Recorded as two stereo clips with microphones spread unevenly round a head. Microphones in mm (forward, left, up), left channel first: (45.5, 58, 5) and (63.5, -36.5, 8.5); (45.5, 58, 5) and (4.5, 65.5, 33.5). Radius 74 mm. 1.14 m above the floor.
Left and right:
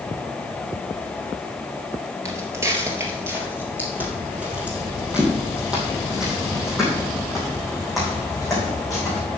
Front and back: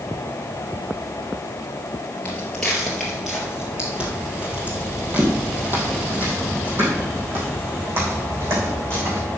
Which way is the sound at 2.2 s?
120° right.